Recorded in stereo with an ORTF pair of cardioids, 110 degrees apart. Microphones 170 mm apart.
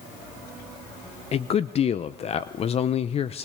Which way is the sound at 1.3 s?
35° left.